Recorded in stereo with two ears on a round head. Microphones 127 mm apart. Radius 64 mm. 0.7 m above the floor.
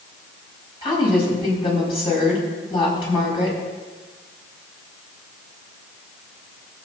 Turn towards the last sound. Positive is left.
turn(degrees=35)  # may be behind; listen again after turning